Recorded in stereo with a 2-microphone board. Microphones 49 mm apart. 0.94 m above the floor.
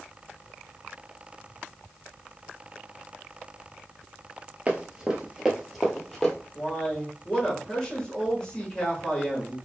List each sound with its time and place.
4.7 s running footsteps: 30° right (ahead or behind), 1.0 m; by 6.3 s 10° left (ahead or behind), 1.4 m
6.5 s a man speaking: 20° left (ahead or behind), 1.2 m